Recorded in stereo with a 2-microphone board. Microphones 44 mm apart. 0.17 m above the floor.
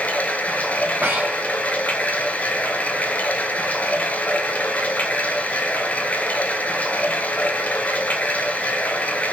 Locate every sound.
0.0 s running water: 35° left (ahead or behind), 0.8 m
1.0 s breathing: 45° right (ahead or behind), 2.5 m